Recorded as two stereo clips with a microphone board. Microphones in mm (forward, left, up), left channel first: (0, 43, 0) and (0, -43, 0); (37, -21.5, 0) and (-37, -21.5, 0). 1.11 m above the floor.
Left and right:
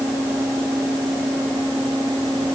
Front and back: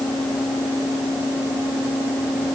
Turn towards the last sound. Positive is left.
No sound to turn to.